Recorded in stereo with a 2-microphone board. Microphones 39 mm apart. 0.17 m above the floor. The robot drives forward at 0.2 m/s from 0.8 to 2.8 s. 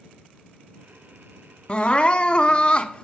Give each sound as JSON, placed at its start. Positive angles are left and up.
{"t": 1.7, "sound": "crying", "side_deg": 30, "distance_m": 0.6}